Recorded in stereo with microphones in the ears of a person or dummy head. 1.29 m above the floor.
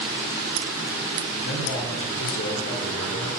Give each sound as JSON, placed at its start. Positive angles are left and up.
{"t": 1.4, "sound": "a man speaking", "side_deg": 80, "distance_m": 4.5}